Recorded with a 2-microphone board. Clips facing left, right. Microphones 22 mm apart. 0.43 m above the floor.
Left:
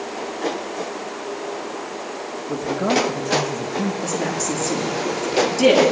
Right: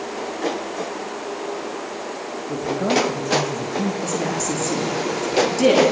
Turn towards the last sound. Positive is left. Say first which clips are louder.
# even
turn(degrees=5)  # may be behind; listen again after turning